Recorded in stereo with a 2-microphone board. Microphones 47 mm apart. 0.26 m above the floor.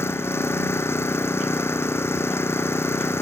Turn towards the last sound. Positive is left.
turn(degrees=70)  # may be behind; listen again after turning